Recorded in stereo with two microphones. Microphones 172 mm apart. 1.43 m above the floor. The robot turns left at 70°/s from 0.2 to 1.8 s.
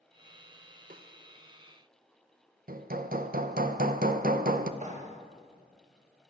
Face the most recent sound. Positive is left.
turn(degrees=-45)  # may be behind; listen again after turning